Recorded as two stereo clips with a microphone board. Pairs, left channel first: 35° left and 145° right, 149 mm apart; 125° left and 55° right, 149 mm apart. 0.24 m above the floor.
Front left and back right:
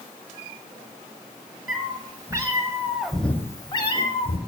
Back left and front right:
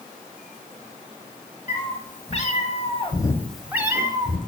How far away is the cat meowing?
About 1.4 m.